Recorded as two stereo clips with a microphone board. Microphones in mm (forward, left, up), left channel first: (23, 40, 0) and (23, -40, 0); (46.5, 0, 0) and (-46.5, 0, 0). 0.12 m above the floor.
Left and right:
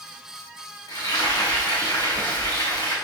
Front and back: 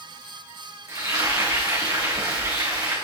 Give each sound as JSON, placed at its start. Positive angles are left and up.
{"t": 0.9, "sound": "frying", "azimuth_deg": 130, "distance_m": 4.5}